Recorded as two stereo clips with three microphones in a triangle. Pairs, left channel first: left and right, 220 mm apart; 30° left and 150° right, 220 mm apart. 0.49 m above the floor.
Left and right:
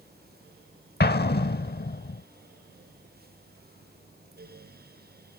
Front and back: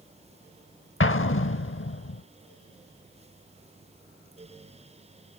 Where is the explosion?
50° left.